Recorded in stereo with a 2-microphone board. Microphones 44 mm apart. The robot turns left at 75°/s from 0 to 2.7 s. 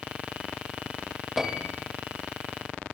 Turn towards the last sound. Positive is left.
turn(degrees=-105)